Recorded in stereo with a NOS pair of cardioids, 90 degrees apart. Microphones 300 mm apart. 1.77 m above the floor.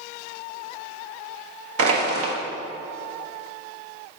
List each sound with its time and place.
1.8 s crushing: 50° right, 1.6 m